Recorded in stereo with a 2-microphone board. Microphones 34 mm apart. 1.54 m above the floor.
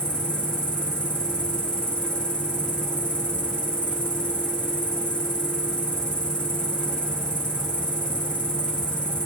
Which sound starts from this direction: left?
An insect, at 0.0 s.